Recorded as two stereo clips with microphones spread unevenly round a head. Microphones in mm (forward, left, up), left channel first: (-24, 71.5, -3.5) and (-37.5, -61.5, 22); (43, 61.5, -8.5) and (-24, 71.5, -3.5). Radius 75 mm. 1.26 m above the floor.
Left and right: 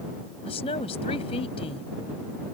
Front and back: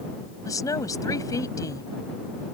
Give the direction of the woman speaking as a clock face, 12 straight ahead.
11 o'clock.